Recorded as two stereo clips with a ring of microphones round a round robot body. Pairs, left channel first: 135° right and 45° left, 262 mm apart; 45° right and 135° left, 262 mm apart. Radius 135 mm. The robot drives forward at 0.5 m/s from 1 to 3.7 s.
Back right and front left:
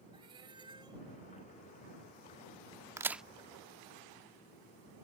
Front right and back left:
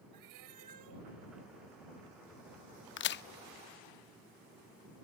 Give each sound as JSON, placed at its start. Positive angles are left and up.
{"t": 0.1, "sound": "a cat meowing", "azimuth_deg": 120}
{"t": 3.0, "sound": "a crack", "azimuth_deg": -30}